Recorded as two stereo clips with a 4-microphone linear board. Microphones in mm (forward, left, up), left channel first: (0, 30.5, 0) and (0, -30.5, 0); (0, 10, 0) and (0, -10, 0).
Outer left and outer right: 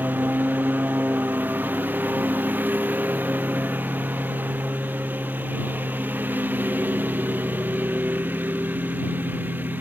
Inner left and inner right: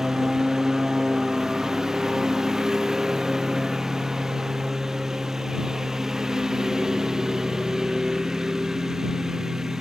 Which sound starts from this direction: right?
A lawn mower, at 0.0 s.